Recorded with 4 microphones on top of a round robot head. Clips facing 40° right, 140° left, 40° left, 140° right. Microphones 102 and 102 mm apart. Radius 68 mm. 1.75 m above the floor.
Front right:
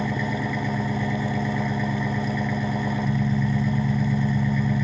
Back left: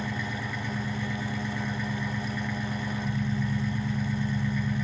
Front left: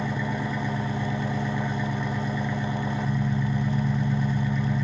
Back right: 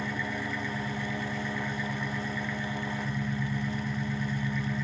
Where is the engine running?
30° right, 0.8 m.